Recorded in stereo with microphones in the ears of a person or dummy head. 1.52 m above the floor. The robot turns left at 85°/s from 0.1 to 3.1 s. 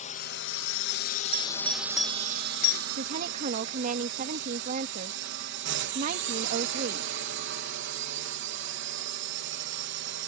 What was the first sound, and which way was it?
A drone, 140° left.